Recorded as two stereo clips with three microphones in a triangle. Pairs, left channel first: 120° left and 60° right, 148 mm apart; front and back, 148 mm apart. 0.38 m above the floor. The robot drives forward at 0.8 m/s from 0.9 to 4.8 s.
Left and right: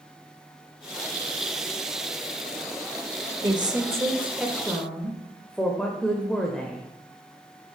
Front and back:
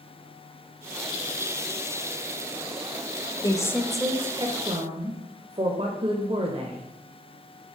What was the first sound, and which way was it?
A woman speaking, 35° right.